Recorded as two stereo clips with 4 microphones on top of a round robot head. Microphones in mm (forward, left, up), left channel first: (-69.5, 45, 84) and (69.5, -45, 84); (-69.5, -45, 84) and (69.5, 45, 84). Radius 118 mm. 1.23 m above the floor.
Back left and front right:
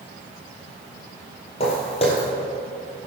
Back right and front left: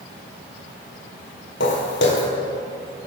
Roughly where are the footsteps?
Behind.